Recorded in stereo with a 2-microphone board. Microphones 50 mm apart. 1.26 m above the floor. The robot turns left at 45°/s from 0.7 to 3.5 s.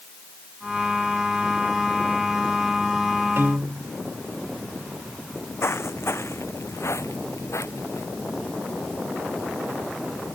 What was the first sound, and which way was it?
A piano, 55° right (ahead or behind).